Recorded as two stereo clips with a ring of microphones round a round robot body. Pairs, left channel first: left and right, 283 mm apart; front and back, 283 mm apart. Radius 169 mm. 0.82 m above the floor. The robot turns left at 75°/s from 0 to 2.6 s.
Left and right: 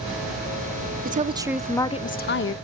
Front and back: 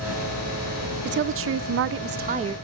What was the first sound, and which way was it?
A woman speaking, 140° right.